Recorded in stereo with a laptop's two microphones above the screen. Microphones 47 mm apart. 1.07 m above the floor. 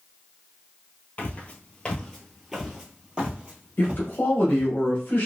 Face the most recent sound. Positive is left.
turn(degrees=40)  # may be behind; listen again after turning